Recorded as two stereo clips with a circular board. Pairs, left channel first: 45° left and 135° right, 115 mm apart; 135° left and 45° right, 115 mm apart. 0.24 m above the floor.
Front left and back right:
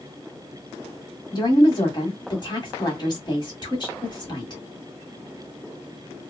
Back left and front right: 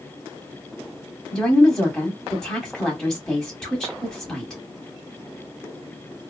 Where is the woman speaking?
55° left, 1.1 m.